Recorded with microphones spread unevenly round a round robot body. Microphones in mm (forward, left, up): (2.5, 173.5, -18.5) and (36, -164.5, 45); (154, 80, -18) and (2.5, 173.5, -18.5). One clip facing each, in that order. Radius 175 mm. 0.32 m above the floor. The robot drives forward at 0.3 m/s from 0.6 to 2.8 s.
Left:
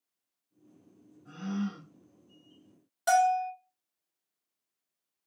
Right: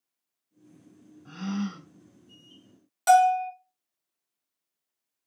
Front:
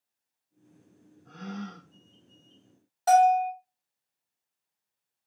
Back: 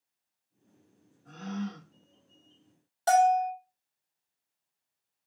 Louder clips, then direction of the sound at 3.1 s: Right 5 dB, front 3 dB; 150° right.